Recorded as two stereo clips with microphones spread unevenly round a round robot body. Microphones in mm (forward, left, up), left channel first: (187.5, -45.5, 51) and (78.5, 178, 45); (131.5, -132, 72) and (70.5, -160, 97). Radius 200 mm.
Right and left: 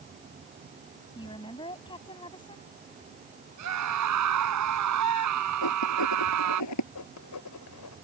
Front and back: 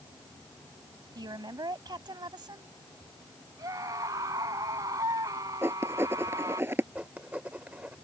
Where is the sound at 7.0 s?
85° right.